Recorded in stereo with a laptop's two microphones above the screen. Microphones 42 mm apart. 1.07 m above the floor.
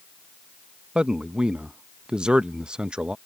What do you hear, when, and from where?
0.9 s a man speaking: 20° right (ahead or behind)